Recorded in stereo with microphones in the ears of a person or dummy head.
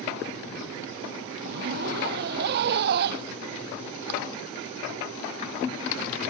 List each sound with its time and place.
1.4 s a zipper: 55° right (ahead or behind)